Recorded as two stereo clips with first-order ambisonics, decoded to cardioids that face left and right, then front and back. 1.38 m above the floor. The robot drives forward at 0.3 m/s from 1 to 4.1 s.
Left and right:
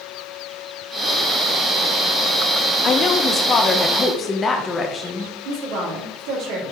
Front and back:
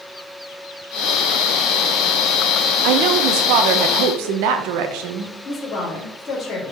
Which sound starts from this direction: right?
A woman speaking, at 5.5 s.